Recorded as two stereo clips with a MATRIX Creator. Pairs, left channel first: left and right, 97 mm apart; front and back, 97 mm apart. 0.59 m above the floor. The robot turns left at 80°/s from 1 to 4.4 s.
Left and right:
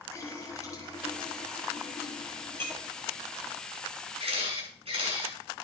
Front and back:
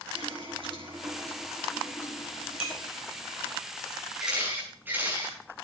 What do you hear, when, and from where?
0.1 s a running tap: 150° left, 7 m; by 3.6 s 60° right, 7 m
2.6 s breaking glass: 20° left, 6 m; by 3.0 s 10° right, 6 m
4.2 s a camera shutter: 95° right, 6 m; by 5.4 s 110° right, 6 m